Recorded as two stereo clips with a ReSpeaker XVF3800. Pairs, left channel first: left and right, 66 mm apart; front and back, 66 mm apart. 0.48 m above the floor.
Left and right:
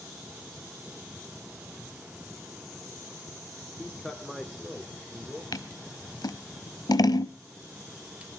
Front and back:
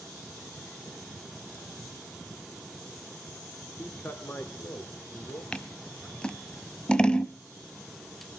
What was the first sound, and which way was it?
A man speaking, 5° left.